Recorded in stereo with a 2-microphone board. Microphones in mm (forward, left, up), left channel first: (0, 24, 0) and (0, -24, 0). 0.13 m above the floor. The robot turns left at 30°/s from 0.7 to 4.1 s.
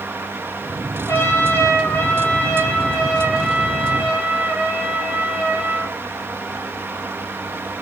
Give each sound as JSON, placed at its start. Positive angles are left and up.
{"t": 1.1, "sound": "a trumpet", "azimuth_deg": 70, "distance_m": 8.5}